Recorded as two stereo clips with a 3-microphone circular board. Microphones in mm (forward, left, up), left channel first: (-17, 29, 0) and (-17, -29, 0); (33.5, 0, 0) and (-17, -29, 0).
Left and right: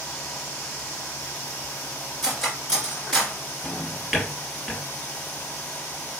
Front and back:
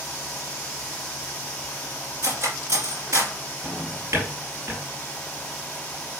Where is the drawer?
Straight behind, 2.5 m.